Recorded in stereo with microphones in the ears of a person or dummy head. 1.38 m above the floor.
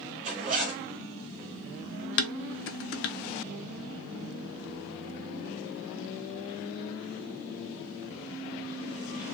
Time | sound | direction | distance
0.2 | a zipper | 40° right (ahead or behind) | 0.9 m
2.2 | dishes clattering | 65° left (ahead or behind) | 0.6 m